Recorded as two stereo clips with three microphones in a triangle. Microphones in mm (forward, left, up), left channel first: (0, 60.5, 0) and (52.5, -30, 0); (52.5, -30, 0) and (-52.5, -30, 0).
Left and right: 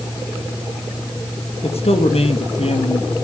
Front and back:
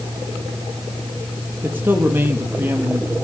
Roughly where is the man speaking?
Left.